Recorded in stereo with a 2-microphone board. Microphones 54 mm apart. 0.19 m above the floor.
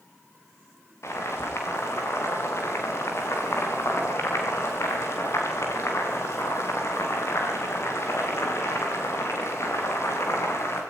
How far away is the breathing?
I don't hear breathing.